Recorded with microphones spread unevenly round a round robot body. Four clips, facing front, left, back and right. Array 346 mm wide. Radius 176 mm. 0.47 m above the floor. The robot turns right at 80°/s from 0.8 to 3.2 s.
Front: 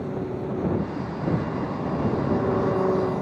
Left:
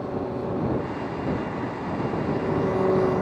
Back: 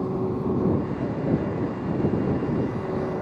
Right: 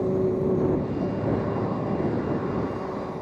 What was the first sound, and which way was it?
An engine running, 125° right.